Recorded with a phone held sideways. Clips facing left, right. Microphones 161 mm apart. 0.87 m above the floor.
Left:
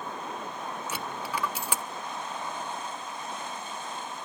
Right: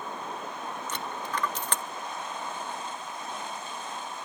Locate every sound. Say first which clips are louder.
0.9 s a dropped coin: right 1 dB; 10° left (ahead or behind), 0.5 m